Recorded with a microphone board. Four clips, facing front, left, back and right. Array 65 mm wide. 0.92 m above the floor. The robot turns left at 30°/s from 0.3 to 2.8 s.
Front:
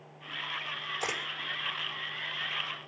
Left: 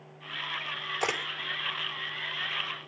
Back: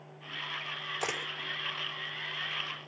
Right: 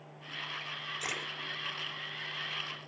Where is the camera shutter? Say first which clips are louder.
Left 9 dB, even; 105° left, 4.5 m; by 1.2 s 100° left, 4.5 m.